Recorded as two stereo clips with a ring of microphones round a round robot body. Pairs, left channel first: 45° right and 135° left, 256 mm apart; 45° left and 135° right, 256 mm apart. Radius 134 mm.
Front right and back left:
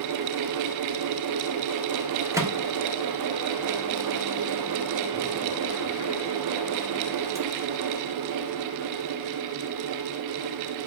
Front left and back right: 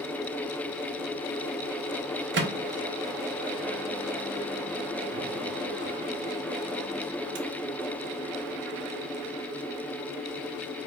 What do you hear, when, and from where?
2.3 s a microwave: 150° right, 0.8 m